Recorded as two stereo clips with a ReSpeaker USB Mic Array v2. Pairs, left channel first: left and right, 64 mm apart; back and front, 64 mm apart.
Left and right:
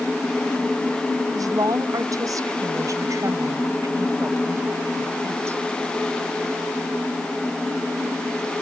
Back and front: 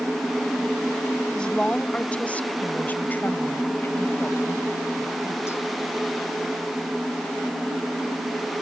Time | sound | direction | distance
1.4 | a woman speaking | 100° right | ?